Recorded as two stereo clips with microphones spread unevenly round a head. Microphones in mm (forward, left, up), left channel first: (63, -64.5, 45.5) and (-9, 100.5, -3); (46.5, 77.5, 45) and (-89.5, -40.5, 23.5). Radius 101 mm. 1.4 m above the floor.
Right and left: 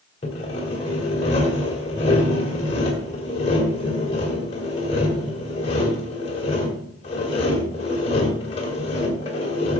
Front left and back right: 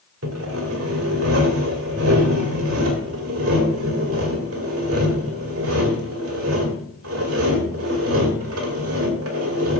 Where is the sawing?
120° right, 2 m.